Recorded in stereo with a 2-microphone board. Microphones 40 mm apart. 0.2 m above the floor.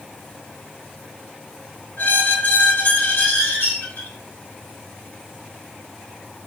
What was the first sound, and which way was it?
A squeak, 65° left (ahead or behind).